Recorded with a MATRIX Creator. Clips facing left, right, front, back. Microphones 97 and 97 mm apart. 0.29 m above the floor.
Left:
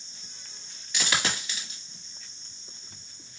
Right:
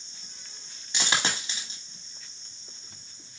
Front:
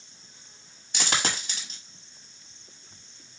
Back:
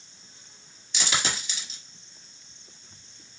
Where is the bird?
I don't hear a bird.